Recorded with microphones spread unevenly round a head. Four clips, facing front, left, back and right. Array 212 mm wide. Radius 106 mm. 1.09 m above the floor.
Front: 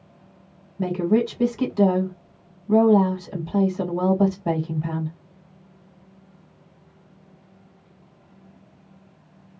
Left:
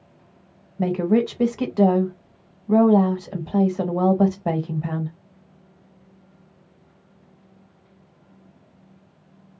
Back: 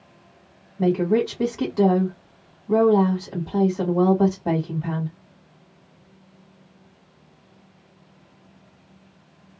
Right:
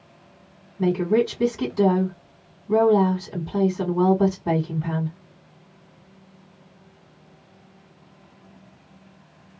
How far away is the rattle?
No rattle in this recording.